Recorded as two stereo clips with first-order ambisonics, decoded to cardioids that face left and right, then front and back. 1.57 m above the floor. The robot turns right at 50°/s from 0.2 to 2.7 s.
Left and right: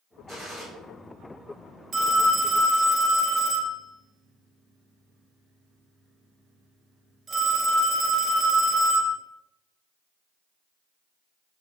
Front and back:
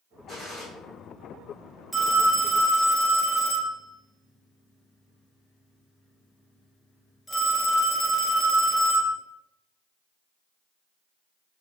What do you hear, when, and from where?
0.3 s a gunshot: 130° right, 1.4 m; by 0.7 s 115° right, 1.4 m
1.9 s a phone ringing: 95° right, 0.5 m; by 9.2 s 60° right, 0.5 m